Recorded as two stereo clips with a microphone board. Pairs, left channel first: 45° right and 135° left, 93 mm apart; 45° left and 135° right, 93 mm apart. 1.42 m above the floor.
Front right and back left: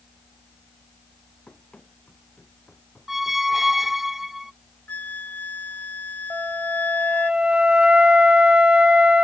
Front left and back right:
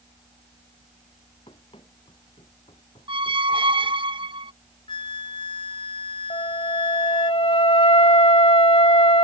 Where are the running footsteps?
35° left; by 4.0 s 40° left.